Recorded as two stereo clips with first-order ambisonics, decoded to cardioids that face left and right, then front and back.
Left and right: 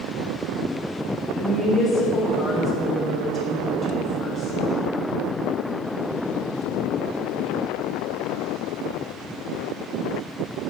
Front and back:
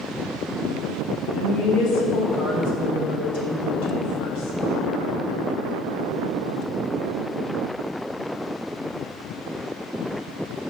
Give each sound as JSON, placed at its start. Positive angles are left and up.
{"t": 1.3, "sound": "a woman speaking", "azimuth_deg": 20, "distance_m": 3.5}